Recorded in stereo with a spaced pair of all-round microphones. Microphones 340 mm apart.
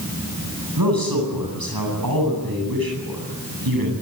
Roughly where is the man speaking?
Right.